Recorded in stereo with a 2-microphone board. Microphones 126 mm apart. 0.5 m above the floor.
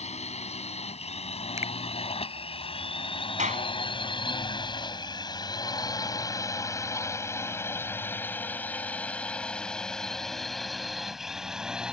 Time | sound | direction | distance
0.0 | a drone | 55° left (ahead or behind) | ?
1.6 | a finger snap | 20° right (ahead or behind) | ?
3.4 | a clap | 70° right (ahead or behind) | ?